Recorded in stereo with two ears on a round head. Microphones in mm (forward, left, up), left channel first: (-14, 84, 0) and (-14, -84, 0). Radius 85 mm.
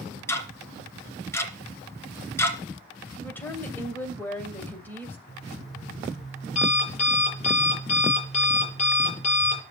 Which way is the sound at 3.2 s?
10° left (ahead or behind).